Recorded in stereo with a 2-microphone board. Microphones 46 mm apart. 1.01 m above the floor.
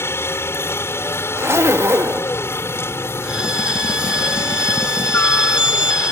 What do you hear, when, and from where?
0.0 s a helicopter: 65° left (ahead or behind)
1.4 s a zipper: 75° right (ahead or behind)
3.2 s a violin: 15° right (ahead or behind)